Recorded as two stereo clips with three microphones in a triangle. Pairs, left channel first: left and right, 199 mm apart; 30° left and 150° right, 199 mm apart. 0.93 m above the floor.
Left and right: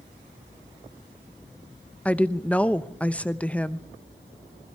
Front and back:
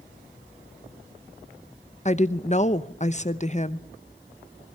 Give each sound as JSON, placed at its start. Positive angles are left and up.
{"t": 2.0, "sound": "a woman speaking", "azimuth_deg": 10, "distance_m": 0.9}